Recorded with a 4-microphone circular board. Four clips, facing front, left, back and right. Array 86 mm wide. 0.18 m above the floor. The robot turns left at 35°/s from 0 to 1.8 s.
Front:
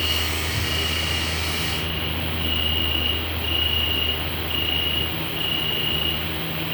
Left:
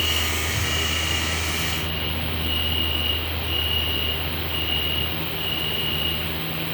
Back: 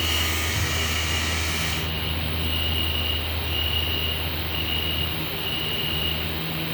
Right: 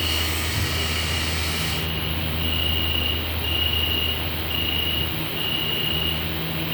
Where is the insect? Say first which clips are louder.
Left 1 dB, even; 55° left, 1.2 m; by 6.8 s 10° right, 1.2 m.